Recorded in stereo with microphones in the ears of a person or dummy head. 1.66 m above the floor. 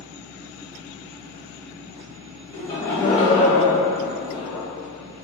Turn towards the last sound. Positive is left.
turn(degrees=25)  # may be behind; listen again after turning